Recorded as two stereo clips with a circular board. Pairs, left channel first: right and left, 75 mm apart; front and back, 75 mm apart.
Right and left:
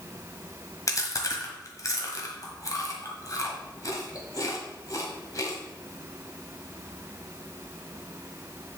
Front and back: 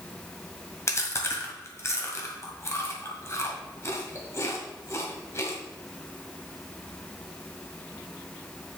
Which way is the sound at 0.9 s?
50° right.